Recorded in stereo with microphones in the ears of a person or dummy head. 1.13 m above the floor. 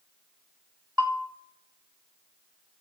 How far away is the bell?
About 1.2 m.